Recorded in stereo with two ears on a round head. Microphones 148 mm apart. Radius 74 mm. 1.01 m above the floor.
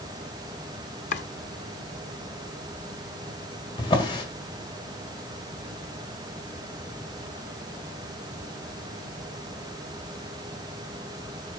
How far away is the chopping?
About 0.9 m.